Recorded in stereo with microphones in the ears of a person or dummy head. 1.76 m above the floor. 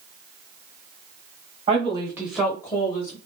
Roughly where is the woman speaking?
Right.